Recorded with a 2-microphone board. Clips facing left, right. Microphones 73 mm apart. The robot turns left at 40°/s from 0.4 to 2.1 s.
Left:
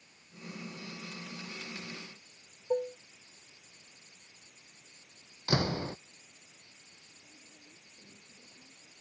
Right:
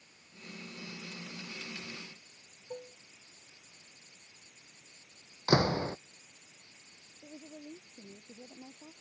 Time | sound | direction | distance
2.7 | dishes clattering | 40° left (ahead or behind) | ?
5.5 | a door slam | 25° right (ahead or behind) | ?
7.2 | a woman speaking | 75° right (ahead or behind) | ?